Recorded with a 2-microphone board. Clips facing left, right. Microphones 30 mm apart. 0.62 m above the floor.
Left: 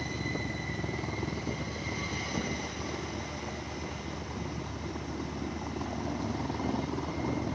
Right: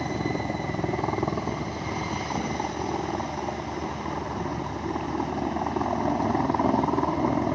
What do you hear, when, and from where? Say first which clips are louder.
0.0 s a helicopter: right 6 dB; 75° right (ahead or behind)